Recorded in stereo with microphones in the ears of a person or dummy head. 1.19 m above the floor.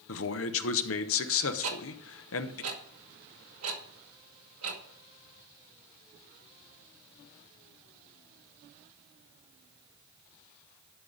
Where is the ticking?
80° right, 1.9 m.